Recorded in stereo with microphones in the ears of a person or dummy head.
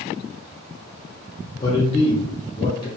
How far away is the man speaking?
About 0.8 m.